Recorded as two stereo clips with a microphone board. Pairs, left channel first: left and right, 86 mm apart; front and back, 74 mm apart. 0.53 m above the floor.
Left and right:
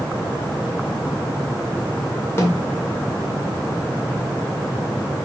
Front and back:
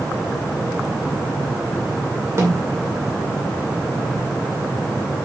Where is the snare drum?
140° left, 2 m.